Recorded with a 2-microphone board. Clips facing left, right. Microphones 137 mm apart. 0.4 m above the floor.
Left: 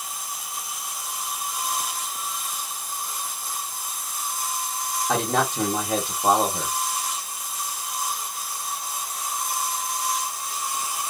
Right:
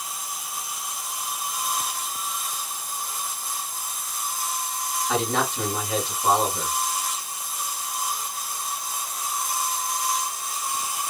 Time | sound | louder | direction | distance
5.1 | a man speaking | left 2 dB | 40° left (ahead or behind) | 1.6 m